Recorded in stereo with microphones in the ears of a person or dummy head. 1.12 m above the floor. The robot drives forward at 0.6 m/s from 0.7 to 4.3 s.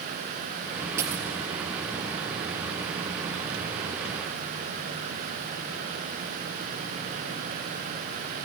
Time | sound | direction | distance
1.0 | a dropped coin | 20° right (ahead or behind) | 3.5 m